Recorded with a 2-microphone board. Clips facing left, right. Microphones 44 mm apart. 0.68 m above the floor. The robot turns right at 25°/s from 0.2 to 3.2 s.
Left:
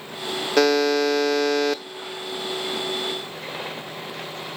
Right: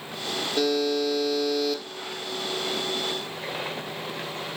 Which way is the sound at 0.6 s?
90° left.